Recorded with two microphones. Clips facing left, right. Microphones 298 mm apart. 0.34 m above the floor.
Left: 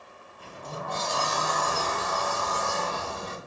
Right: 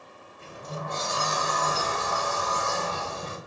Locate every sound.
0.4 s a sliding door: 25° right (ahead or behind), 0.7 m